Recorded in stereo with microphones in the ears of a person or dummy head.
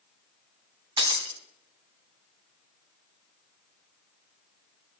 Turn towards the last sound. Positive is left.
turn(degrees=-30)  # may be behind; listen again after turning